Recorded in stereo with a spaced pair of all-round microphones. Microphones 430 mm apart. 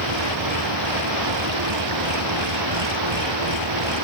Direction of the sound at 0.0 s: 85° right.